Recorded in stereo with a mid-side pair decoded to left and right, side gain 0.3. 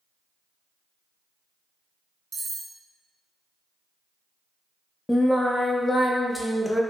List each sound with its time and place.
2.3 s cutlery clinking: 65° right, 0.7 m
5.1 s singing: 20° left, 0.6 m